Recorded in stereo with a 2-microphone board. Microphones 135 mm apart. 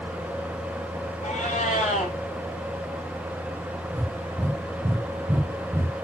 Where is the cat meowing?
65° left (ahead or behind), 2 m.